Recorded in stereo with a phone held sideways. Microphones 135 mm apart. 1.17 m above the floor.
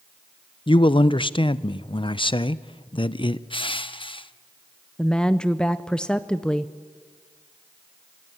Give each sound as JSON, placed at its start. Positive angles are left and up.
{"t": 0.7, "sound": "a man speaking", "side_deg": 40, "distance_m": 0.6}
{"t": 3.5, "sound": "crushing", "side_deg": 40, "distance_m": 0.7}
{"t": 5.0, "sound": "a woman speaking", "side_deg": 5, "distance_m": 0.6}